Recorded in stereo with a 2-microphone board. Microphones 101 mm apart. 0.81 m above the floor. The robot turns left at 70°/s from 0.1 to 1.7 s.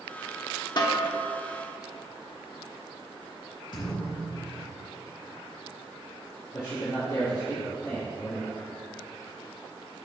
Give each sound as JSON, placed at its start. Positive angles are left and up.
{"t": 0.8, "sound": "a snare drum", "side_deg": 45, "distance_m": 1.1}
{"t": 3.7, "sound": "a thud", "side_deg": 50, "distance_m": 3.0}
{"t": 6.5, "sound": "a man speaking", "side_deg": 40, "distance_m": 2.5}